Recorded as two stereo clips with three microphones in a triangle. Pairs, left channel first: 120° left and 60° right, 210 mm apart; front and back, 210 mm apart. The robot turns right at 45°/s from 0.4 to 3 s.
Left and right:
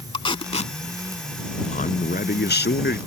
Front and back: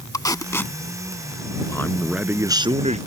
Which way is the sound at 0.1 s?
70° left.